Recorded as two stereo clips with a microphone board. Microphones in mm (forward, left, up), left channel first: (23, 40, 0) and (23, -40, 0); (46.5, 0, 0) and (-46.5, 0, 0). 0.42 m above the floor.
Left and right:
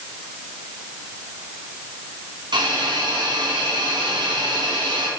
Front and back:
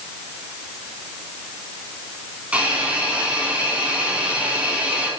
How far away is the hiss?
About 2.5 m.